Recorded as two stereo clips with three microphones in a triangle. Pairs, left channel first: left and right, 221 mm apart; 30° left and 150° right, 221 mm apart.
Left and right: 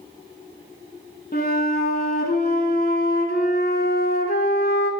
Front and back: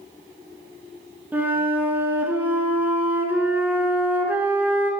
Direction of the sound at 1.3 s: 130° left.